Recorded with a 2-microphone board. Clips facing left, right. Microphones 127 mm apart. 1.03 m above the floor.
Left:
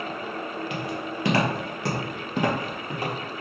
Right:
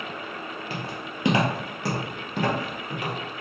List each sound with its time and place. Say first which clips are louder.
0.7 s footsteps: left 4 dB; 35° right (ahead or behind), 1.2 m; by 3.1 s 35° left (ahead or behind), 1.2 m